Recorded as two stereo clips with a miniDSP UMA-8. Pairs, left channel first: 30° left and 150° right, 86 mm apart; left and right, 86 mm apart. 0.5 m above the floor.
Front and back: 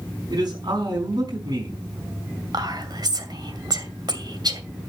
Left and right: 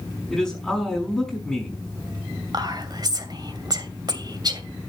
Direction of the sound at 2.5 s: 120° right.